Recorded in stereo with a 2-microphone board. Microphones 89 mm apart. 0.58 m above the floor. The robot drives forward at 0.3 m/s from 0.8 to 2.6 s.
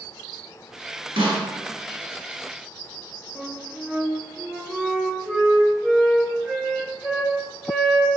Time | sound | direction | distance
1.2 | a snare drum | 75° right (ahead or behind) | 1.4 m
3.4 | a flute | 5° right (ahead or behind) | 0.7 m